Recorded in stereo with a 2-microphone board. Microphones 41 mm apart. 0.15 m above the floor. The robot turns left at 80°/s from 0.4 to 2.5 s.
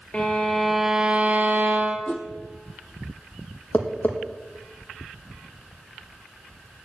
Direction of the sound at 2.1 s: 30° left (ahead or behind).